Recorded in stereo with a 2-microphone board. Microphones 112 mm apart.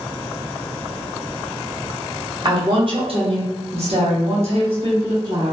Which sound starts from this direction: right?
A woman speaking, at 2.5 s.